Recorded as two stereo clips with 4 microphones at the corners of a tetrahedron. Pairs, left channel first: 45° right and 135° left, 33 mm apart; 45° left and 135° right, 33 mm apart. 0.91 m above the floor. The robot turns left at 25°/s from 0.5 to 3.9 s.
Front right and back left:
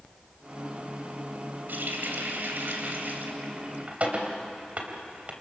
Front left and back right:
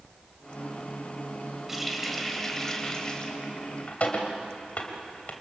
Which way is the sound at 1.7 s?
145° left.